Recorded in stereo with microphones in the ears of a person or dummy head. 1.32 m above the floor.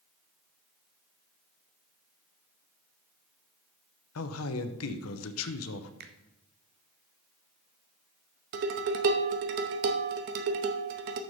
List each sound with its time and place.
4.2 s a man speaking: 80° left, 0.9 m
6.0 s a finger snap: 55° right (ahead or behind), 0.8 m
8.5 s dishes clattering: 55° right (ahead or behind), 0.9 m